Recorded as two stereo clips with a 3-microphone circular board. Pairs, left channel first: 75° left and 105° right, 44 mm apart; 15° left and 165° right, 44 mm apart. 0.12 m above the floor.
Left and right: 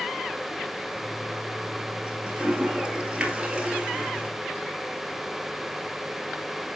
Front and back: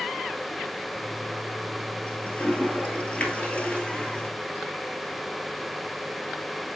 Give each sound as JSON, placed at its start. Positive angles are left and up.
{"t": 0.9, "sound": "a toilet flushing", "azimuth_deg": -40, "distance_m": 1.2}